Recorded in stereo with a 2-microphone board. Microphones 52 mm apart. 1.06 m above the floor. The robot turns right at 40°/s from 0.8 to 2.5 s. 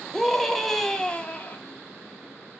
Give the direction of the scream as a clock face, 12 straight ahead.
12 o'clock.